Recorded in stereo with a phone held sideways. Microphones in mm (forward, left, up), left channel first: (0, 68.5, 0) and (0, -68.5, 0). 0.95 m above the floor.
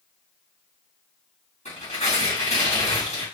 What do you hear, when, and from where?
1.6 s tearing paper: 60° left (ahead or behind), 3 m